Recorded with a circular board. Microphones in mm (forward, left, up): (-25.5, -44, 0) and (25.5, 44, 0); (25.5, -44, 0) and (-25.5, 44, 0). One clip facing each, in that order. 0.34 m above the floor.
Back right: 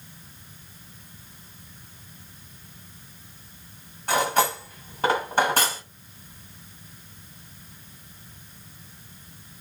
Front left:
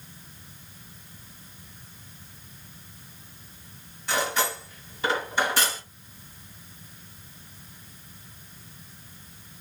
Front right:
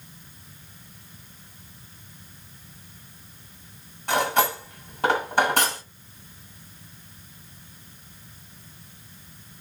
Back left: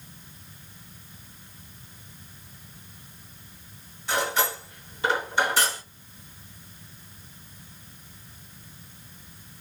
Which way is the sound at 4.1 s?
90° right.